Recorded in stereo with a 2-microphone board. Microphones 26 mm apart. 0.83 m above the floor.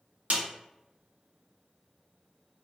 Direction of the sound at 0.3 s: 65° right (ahead or behind).